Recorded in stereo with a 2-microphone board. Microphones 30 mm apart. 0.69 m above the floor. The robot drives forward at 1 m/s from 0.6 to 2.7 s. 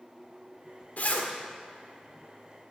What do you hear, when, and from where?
1.0 s a zipper: 65° left (ahead or behind), 1.6 m; by 1.3 s 60° left (ahead or behind), 1.7 m